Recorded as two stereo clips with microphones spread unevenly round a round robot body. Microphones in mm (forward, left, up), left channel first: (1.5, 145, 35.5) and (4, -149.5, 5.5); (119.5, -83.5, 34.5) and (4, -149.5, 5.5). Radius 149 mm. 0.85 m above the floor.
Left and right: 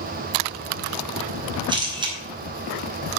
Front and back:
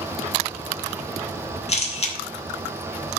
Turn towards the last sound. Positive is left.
turn(degrees=-15)